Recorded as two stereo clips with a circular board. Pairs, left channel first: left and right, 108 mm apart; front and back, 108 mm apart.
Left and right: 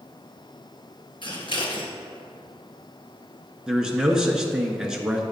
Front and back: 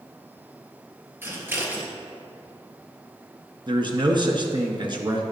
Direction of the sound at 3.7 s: 170° right.